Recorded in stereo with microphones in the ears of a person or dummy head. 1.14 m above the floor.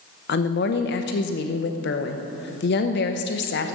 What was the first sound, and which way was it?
A woman speaking, 55° left (ahead or behind).